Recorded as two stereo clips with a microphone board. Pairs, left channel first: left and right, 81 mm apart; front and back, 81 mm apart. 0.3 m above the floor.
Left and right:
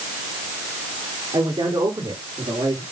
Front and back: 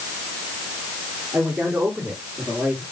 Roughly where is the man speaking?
Right.